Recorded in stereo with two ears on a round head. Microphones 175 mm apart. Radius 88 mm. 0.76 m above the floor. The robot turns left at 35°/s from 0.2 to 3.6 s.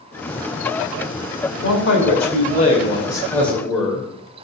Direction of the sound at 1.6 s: 70° left.